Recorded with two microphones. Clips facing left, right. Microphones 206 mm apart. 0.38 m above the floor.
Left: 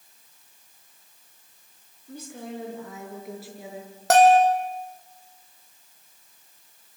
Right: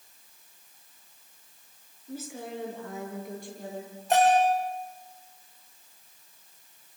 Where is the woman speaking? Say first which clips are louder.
Even; 5° right (ahead or behind), 6.5 m; by 3.9 s 10° left (ahead or behind), 7.5 m.